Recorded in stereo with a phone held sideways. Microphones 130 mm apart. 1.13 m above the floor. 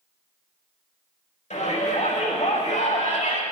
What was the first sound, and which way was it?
A shout, 75° left (ahead or behind).